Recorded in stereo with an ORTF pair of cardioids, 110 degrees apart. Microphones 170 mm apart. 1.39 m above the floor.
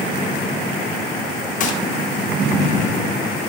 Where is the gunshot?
50° left, 0.7 m.